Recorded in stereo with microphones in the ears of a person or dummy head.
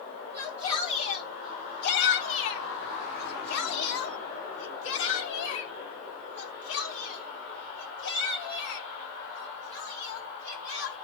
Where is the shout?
20° left (ahead or behind), 1.1 m; by 11.0 s 60° left (ahead or behind), 5.5 m.